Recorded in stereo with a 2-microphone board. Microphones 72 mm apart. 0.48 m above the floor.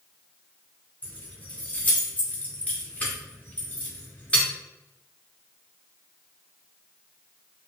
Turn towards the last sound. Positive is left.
turn(degrees=20)  # may be behind; listen again after turning